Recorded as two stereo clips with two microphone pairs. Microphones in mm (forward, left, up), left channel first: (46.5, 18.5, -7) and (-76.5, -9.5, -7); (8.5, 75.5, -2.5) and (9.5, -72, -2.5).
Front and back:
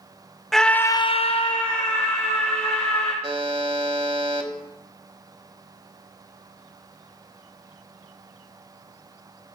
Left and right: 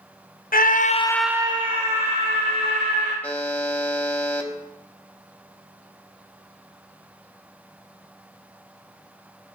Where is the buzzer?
165° left, 1.1 m.